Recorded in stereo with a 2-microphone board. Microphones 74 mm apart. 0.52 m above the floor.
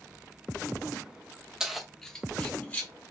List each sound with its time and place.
1.6 s keys jangling: 10° right (ahead or behind), 0.6 m; by 2.9 s 25° left (ahead or behind), 1.1 m